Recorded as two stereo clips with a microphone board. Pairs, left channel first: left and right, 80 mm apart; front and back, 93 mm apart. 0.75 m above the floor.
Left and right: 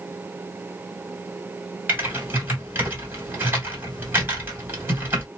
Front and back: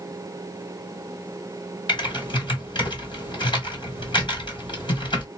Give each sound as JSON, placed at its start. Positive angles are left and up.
{"t": 1.9, "sound": "typing on a keyboard", "azimuth_deg": -30, "distance_m": 1.9}